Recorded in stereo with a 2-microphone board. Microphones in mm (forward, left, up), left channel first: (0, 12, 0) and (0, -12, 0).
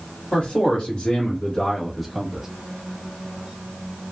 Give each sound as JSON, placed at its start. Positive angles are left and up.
{"t": 0.3, "sound": "a man speaking", "side_deg": 50, "distance_m": 1.9}